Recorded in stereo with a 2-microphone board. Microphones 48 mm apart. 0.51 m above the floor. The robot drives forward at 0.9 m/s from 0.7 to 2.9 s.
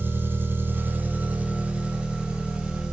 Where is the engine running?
45° right (ahead or behind), 0.9 m; by 2.9 s 15° right (ahead or behind), 2.5 m.